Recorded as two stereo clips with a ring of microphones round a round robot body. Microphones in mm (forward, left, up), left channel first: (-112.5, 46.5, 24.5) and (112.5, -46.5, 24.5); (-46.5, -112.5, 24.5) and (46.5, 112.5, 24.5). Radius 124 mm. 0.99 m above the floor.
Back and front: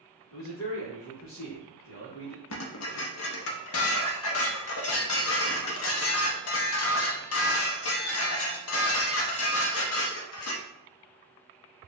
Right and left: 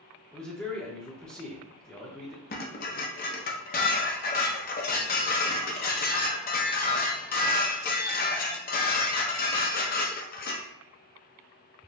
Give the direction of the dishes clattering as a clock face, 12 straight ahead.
6 o'clock.